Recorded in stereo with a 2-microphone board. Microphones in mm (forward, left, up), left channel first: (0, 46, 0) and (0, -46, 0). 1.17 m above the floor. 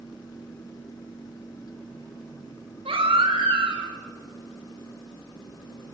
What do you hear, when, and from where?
2.9 s a baby crying: 85° right, 4 m